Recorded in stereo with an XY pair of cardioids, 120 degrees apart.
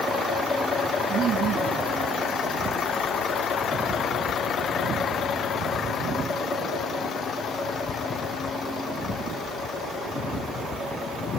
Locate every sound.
1.1 s laughter: 70° right, 1.4 m